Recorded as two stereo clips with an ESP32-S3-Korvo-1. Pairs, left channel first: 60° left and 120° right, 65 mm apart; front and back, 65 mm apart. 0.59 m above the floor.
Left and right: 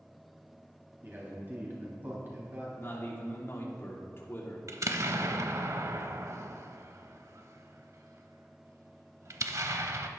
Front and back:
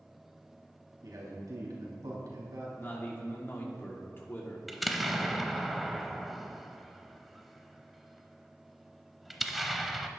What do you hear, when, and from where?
1.0 s a man speaking: 175° right, 3.5 m
2.8 s a man speaking: 35° left, 1.6 m
4.7 s an explosion: 90° right, 0.7 m